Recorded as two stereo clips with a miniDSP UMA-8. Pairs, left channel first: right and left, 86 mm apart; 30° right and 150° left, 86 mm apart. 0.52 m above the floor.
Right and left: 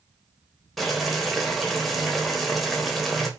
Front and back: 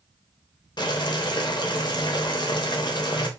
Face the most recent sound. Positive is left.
turn(degrees=0)